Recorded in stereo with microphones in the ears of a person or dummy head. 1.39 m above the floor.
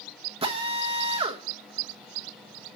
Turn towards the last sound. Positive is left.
turn(degrees=-35)  # may be behind; listen again after turning